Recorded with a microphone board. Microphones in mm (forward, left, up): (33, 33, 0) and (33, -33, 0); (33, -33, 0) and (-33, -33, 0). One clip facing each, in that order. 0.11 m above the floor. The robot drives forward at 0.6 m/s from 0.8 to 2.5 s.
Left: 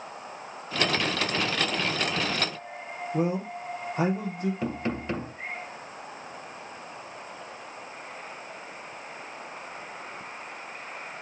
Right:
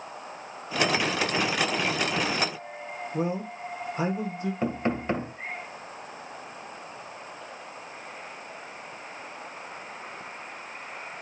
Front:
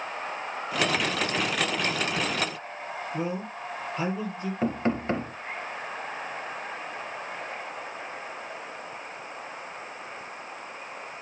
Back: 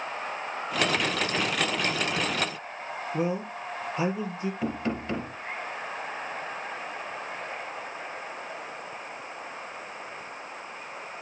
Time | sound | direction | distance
3.1 | a man speaking | 105° left | 3 m
4.6 | knocking | 35° right | 1.8 m